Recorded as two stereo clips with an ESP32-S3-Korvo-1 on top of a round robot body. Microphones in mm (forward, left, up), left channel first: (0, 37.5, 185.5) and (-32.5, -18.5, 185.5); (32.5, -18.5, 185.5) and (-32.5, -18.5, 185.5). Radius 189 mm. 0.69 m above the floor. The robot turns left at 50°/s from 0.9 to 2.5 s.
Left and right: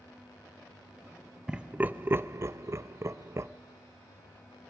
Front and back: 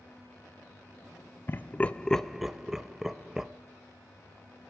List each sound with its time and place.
1.5 s laughter: 45° right, 0.8 m; by 3.5 s 100° right, 0.8 m